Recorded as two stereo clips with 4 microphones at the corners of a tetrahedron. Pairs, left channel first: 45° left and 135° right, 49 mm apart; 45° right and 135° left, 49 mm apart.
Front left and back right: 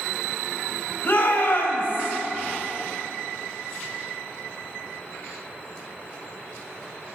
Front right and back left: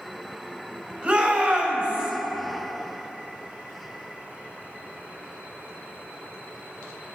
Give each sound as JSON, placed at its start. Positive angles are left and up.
{"t": 1.0, "sound": "a shout", "azimuth_deg": 80, "distance_m": 4.5}